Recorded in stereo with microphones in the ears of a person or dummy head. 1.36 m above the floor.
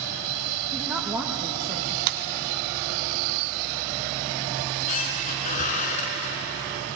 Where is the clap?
50° right (ahead or behind), 1.1 m.